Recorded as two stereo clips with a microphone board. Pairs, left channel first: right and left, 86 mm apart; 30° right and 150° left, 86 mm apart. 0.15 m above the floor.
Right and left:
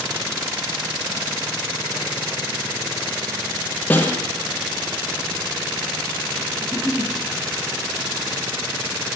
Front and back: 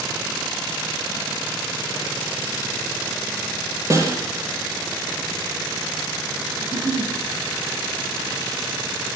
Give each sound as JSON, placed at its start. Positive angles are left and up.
{"t": 3.9, "sound": "a snare drum", "azimuth_deg": -160, "distance_m": 5.5}
{"t": 6.6, "sound": "a giggle", "azimuth_deg": -175, "distance_m": 7.5}